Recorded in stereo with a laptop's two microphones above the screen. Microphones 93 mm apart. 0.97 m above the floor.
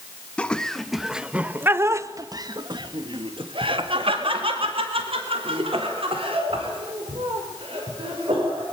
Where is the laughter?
15° left (ahead or behind), 1.6 m; by 8.6 s 75° right (ahead or behind), 5 m.